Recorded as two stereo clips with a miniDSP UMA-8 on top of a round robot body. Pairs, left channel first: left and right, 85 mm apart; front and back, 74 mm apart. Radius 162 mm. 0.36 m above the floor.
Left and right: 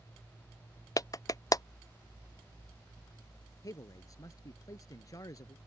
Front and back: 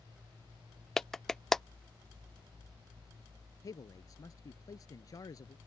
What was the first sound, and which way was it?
A clap, 80° left.